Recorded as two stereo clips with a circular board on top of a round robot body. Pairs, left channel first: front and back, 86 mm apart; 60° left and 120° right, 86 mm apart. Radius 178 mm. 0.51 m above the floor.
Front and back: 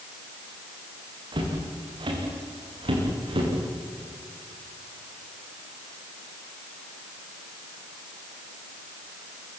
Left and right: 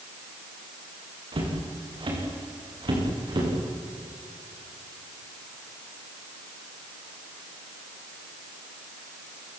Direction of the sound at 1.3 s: 150° right.